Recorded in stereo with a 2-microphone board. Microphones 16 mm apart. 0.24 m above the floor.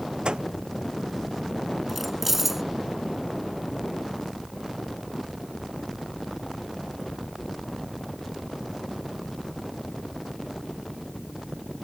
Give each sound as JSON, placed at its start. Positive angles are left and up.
{"t": 0.2, "sound": "a microwave", "side_deg": -75}
{"t": 1.9, "sound": "keys jangling", "side_deg": -10}